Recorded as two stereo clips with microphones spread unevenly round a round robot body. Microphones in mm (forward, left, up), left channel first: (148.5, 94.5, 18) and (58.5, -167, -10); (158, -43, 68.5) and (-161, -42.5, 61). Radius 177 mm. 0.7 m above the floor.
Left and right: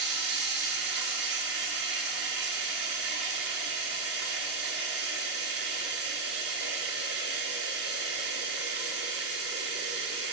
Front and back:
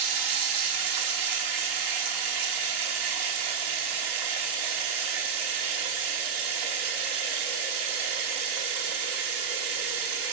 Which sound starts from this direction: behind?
Running water, at 0.0 s.